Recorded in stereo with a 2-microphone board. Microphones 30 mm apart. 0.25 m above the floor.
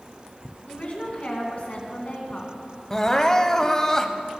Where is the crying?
15° left (ahead or behind), 0.6 m.